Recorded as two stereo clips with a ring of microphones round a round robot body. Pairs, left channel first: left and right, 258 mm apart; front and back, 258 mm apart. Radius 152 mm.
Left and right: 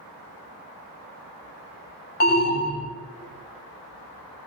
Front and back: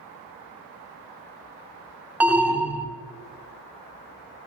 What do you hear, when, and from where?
2.2 s an alarm: 100° left, 1.4 m